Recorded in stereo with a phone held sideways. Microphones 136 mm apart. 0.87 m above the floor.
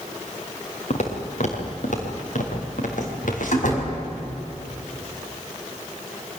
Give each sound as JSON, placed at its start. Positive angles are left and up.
{"t": 0.9, "sound": "footsteps", "side_deg": 55, "distance_m": 4.5}
{"t": 3.5, "sound": "a door slam", "side_deg": 70, "distance_m": 5.5}